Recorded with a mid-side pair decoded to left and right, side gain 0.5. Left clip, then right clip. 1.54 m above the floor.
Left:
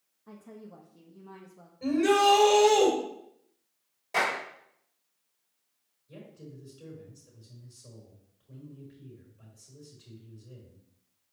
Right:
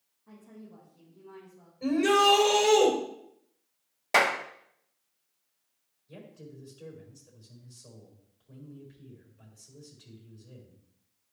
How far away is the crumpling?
I don't hear crumpling.